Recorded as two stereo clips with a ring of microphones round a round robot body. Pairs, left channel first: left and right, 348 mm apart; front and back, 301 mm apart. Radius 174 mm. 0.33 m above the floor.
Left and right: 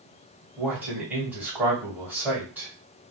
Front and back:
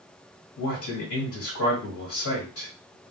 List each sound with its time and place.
0.6 s a man speaking: 5° right, 1.8 m